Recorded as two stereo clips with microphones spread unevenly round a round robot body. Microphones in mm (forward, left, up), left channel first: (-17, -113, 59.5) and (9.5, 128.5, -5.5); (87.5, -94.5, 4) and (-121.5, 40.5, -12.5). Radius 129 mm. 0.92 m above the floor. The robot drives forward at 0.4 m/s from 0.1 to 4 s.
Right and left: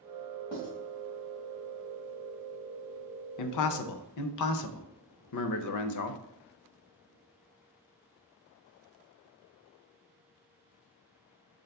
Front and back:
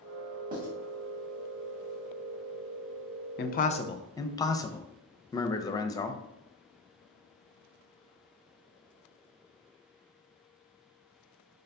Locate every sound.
0.5 s writing: 155° right, 2 m
3.4 s a man speaking: 80° right, 0.5 m; by 6.2 s 110° right, 0.6 m